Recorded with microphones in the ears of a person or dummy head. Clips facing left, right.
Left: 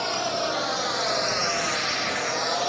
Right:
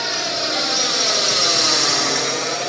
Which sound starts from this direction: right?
A drone, at 0.0 s.